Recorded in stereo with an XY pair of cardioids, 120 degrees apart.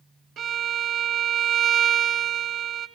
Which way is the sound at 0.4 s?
60° right.